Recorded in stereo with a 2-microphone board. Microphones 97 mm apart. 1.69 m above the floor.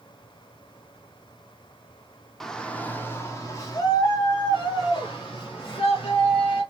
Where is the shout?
5° left (ahead or behind), 0.9 m; by 6.6 s 55° left (ahead or behind), 2.5 m.